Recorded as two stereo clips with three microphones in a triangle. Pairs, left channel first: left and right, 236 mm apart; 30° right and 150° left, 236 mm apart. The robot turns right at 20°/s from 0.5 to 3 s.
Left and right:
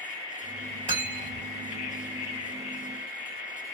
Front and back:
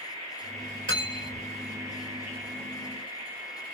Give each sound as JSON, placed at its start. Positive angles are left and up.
{"t": 0.9, "sound": "cutlery clinking", "azimuth_deg": 145, "distance_m": 1.5}